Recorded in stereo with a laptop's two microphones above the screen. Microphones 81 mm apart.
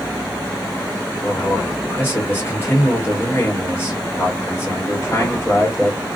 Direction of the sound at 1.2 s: 25° left (ahead or behind).